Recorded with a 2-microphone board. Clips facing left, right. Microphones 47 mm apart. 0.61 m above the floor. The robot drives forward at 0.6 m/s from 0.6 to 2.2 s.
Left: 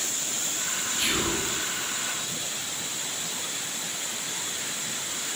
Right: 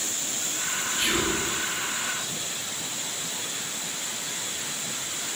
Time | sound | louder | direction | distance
1.0 | whispering | right 2 dB | 40° right (ahead or behind) | 0.8 m